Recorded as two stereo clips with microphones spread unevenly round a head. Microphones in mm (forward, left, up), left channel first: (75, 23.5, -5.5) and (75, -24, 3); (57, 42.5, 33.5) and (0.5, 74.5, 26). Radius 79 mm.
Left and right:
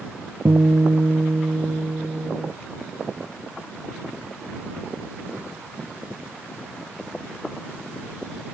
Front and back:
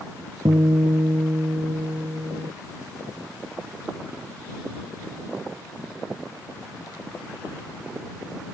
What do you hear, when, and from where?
0.5 s a guitar: 155° right